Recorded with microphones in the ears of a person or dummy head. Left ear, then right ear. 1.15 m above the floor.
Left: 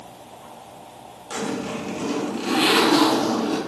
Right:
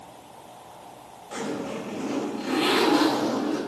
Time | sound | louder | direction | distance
1.3 | a zipper | left 3 dB | 50° left (ahead or behind) | 1.7 m